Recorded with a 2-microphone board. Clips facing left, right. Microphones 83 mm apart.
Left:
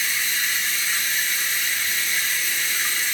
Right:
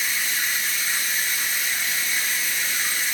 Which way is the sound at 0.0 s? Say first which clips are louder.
Left 1 dB; 10° right (ahead or behind).